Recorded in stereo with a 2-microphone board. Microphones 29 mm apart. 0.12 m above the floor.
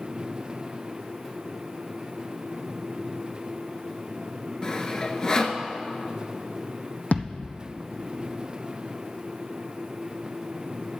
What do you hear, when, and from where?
4.6 s sawing: 25° left (ahead or behind), 0.8 m
7.1 s a thud: 65° left (ahead or behind), 1.2 m